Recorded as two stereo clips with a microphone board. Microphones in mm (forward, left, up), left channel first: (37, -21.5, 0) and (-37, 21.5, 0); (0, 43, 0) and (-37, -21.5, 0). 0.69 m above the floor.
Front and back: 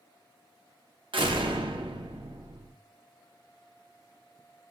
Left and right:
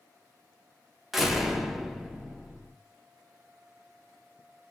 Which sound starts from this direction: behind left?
A door slam, at 1.1 s.